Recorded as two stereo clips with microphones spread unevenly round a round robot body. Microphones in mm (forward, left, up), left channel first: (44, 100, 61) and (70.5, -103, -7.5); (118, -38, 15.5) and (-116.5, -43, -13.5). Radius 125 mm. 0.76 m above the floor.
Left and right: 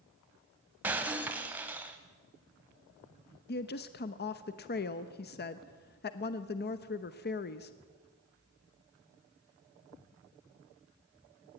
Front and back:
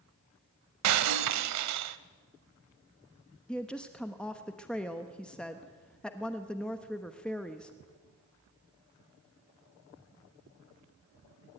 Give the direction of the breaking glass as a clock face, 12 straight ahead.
6 o'clock.